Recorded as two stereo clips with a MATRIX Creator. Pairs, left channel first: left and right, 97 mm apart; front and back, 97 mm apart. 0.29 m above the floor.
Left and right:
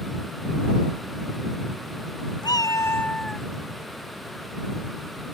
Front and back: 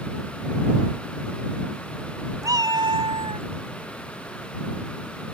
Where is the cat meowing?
130° left; by 3.5 s straight behind.